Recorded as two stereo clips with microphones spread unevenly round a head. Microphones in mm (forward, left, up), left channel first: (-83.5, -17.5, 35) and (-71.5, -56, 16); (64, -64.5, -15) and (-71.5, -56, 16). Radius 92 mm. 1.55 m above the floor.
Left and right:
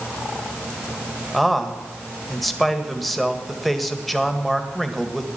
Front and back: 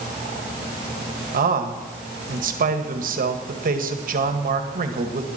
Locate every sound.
1.3 s a man speaking: 170° right, 1.8 m